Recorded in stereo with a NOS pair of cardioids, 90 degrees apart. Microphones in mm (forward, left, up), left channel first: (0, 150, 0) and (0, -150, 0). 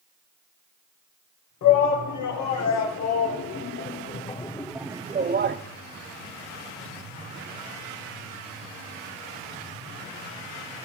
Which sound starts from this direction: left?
A shout, at 1.6 s.